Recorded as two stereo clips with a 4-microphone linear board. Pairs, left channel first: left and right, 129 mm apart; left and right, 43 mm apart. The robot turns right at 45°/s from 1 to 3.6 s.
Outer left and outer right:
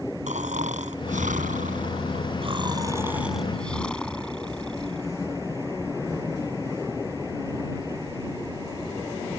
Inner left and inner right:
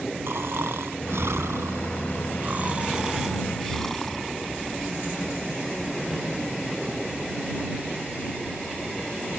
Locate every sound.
0.3 s snoring: 110° right; by 5.1 s 5° left